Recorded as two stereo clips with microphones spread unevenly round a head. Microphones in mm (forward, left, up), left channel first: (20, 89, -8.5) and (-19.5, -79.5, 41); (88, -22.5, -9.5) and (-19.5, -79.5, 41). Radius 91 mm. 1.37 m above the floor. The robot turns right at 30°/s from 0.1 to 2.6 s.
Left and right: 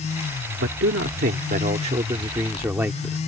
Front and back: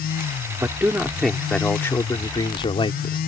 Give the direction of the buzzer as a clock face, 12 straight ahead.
No buzzer in this recording.